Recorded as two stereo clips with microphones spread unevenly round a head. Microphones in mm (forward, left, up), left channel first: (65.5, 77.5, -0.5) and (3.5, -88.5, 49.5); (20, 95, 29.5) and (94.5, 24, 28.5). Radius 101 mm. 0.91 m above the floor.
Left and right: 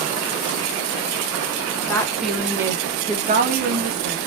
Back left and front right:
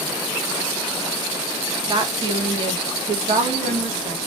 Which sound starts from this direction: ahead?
A woman speaking, at 1.9 s.